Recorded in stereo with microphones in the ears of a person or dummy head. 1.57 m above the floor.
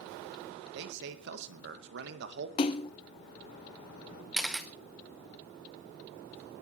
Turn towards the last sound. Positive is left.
turn(degrees=0)  # may be behind; listen again after turning